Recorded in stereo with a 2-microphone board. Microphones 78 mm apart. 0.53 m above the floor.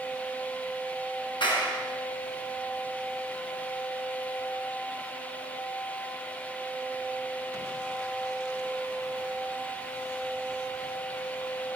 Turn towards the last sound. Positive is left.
turn(degrees=80)